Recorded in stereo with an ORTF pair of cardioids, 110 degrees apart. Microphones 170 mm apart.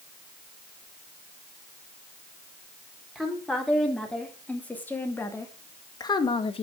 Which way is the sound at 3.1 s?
Straight ahead.